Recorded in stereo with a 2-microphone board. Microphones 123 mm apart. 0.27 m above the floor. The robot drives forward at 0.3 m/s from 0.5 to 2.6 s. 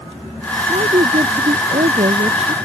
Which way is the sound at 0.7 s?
65° right (ahead or behind).